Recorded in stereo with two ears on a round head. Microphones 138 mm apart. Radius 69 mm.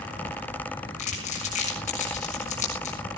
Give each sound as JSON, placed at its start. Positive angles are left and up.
{"t": 1.0, "sound": "crumpling", "side_deg": 50, "distance_m": 6.0}